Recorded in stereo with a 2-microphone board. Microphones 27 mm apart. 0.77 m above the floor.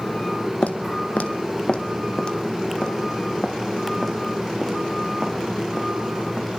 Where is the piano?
No piano in this recording.